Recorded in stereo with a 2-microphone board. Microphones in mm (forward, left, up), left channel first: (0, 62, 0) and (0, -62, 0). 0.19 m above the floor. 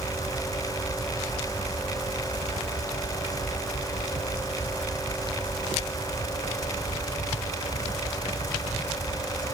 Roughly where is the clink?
I don't hear a clink.